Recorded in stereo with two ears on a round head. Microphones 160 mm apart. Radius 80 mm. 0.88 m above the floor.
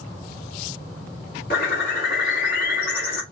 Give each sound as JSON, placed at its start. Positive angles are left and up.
{"t": 1.5, "sound": "a bird", "side_deg": 55, "distance_m": 1.6}